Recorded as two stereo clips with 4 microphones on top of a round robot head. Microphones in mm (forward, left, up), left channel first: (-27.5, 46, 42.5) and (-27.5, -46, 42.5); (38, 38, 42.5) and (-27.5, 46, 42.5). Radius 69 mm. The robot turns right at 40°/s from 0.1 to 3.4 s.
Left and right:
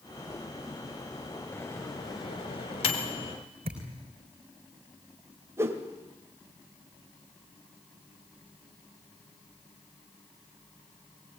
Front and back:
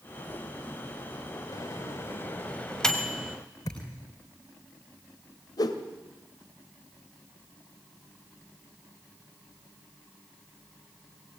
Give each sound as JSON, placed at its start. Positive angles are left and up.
{"t": 1.5, "sound": "a microwave", "azimuth_deg": 20, "distance_m": 2.0}
{"t": 3.6, "sound": "a thud", "azimuth_deg": -55, "distance_m": 3.5}
{"t": 5.6, "sound": "a whoosh", "azimuth_deg": -25, "distance_m": 1.5}